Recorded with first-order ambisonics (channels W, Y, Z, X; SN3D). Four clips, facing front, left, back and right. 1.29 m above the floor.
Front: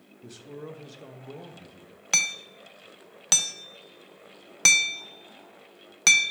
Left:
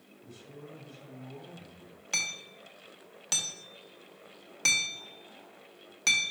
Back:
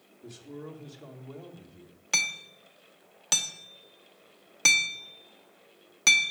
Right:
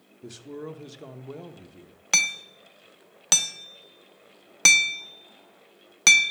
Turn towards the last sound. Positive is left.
turn(degrees=-65)